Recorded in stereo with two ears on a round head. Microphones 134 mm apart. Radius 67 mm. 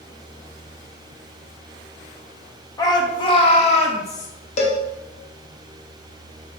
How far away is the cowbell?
About 1.1 m.